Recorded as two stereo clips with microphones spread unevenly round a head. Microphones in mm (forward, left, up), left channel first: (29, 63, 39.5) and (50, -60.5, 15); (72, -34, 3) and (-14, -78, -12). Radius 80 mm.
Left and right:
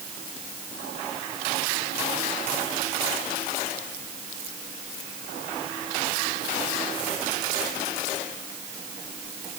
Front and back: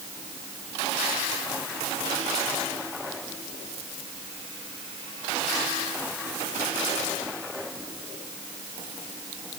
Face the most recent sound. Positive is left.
No sound to turn to.